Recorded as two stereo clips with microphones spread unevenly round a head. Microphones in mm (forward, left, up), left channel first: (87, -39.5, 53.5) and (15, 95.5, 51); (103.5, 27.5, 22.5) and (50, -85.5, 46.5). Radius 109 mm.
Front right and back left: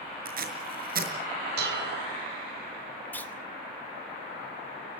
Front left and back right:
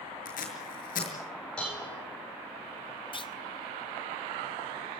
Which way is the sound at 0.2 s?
95° left.